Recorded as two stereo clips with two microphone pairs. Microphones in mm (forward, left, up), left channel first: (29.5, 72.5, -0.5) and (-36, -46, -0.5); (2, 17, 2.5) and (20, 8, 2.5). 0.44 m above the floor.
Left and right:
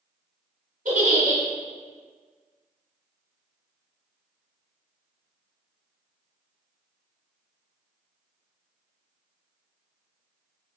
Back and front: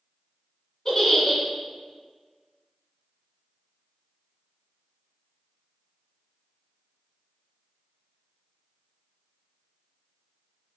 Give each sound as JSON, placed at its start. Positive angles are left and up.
{"t": 0.8, "sound": "a giggle", "azimuth_deg": -130, "distance_m": 1.0}